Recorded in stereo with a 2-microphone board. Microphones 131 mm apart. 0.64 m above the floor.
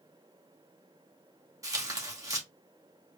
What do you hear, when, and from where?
1.6 s tearing paper: 25° right (ahead or behind), 1.0 m